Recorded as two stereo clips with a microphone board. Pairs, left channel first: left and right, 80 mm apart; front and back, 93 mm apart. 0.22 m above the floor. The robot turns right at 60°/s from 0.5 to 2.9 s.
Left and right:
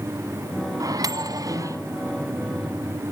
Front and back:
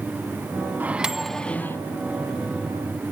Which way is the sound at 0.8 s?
115° right.